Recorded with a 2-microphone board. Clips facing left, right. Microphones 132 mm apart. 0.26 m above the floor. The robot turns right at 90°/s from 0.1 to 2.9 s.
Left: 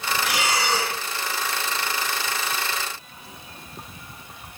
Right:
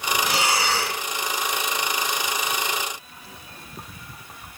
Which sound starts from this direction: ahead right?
Breathing, at 0.2 s.